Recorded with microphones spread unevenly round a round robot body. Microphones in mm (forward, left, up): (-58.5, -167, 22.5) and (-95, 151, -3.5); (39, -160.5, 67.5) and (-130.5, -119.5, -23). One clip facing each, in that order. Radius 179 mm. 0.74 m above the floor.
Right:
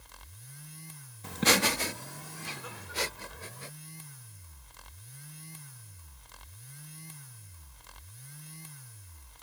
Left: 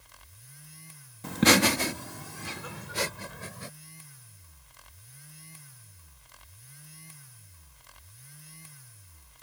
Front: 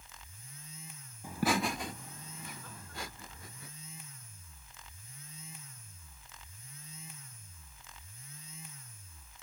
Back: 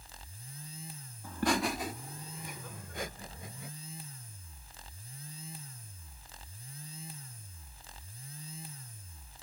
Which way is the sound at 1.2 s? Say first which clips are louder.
Left 6 dB, back 1 dB; 85° left.